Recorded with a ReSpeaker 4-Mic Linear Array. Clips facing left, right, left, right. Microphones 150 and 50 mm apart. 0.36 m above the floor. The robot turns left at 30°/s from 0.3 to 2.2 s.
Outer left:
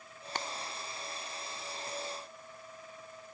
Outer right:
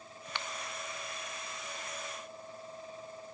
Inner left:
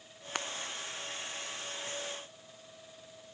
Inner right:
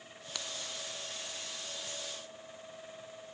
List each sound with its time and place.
0.3 s breaking glass: 40° left (ahead or behind); by 0.5 s 35° left (ahead or behind)